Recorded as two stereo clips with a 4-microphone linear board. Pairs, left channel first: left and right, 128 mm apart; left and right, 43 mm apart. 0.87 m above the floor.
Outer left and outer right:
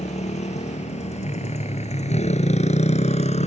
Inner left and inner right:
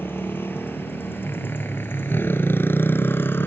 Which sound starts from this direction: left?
A motorcycle, at 0.0 s.